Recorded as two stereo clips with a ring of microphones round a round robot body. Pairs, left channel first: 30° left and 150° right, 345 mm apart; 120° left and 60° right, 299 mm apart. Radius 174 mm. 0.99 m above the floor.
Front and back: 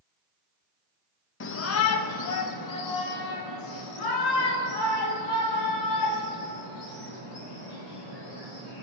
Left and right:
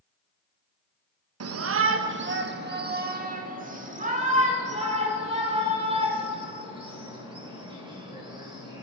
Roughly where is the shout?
Ahead right.